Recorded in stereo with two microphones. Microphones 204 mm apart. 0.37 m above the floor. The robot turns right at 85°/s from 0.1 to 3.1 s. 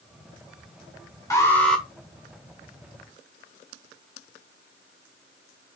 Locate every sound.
1.3 s an alarm: 15° left (ahead or behind), 1.5 m; by 1.9 s centre (ahead or behind), 1.5 m